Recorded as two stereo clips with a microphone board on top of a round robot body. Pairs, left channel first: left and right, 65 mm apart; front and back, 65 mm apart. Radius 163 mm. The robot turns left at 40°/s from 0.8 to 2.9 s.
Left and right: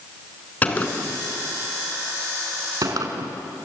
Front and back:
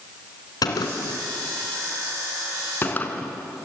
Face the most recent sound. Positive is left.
turn(degrees=-60)